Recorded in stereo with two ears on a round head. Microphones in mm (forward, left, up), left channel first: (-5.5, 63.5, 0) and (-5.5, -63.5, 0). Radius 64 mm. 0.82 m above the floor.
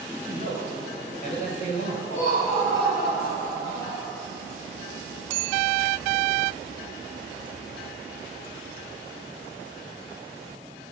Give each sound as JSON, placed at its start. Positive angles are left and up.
{"t": 0.3, "sound": "a man speaking", "side_deg": 55, "distance_m": 4.0}
{"t": 2.1, "sound": "laughter", "side_deg": 80, "distance_m": 3.5}